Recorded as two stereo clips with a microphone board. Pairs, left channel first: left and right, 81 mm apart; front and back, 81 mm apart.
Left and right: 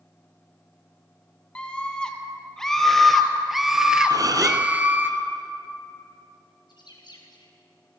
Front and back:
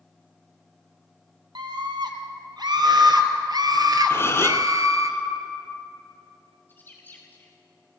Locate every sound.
1.6 s a scream: 165° left, 3 m; by 5.1 s 150° right, 2.0 m
4.1 s a gasp: 55° right, 1.3 m
6.7 s a bird: 65° left, 4 m